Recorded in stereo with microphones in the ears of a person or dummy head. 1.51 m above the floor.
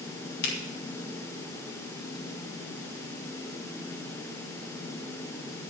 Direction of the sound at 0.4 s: 60° left (ahead or behind).